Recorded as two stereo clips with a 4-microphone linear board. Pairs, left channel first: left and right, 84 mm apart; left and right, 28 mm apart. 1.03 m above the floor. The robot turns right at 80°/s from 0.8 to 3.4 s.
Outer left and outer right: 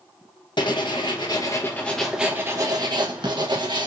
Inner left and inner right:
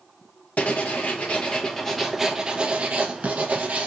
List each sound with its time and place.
0.6 s writing: 80° left, 1.0 m; by 3.9 s 75° right, 1.0 m